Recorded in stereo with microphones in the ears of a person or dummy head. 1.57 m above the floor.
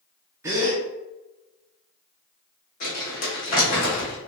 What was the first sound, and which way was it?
A gasp, 10° right (ahead or behind).